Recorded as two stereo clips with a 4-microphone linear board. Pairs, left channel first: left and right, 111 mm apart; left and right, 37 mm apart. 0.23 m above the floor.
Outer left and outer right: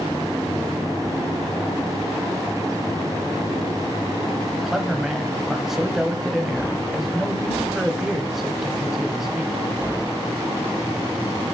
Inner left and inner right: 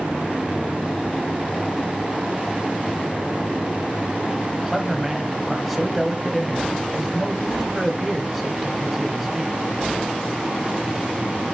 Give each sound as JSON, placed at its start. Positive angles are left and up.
{"t": 4.5, "sound": "a man speaking", "side_deg": -5, "distance_m": 1.0}